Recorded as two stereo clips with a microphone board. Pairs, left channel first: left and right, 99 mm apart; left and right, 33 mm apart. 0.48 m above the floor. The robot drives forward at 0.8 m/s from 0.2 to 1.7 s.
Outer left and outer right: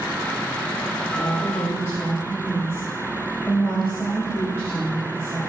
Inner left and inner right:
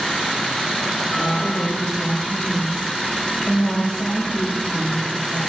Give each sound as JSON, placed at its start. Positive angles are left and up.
{"t": 1.1, "sound": "a woman speaking", "side_deg": 30, "distance_m": 2.0}